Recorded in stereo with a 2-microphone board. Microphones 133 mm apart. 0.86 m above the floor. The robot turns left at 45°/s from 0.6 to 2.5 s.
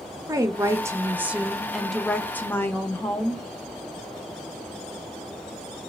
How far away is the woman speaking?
About 0.6 m.